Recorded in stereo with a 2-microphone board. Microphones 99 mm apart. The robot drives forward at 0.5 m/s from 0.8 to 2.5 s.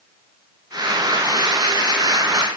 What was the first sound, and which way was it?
Only background noise.